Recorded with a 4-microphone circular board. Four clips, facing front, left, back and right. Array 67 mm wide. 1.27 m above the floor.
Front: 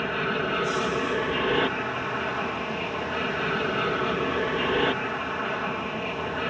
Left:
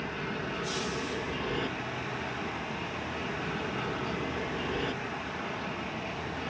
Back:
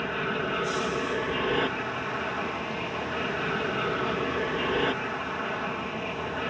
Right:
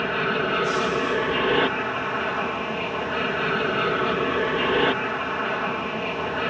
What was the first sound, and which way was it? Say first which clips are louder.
An aircraft: right 12 dB, front 2 dB; 80° right.